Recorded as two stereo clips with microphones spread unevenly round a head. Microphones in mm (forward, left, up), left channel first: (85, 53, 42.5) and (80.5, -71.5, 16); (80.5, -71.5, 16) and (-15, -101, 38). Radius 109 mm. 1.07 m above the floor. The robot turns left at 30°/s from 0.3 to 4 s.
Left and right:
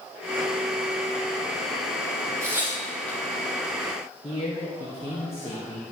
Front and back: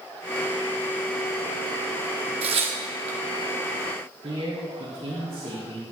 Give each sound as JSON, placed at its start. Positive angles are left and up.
{"t": 2.4, "sound": "tearing paper", "azimuth_deg": -175, "distance_m": 1.1}
{"t": 4.2, "sound": "a man speaking", "azimuth_deg": 150, "distance_m": 1.3}